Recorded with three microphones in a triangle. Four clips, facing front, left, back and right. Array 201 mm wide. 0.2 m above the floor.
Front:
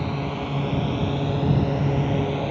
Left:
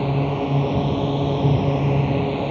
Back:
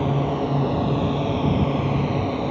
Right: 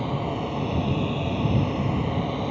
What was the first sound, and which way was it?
A drone, 115° left.